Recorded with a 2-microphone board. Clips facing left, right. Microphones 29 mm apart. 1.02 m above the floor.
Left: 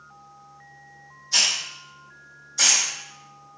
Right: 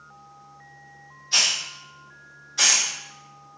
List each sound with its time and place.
1.3 s a hiss: 65° right (ahead or behind), 1.8 m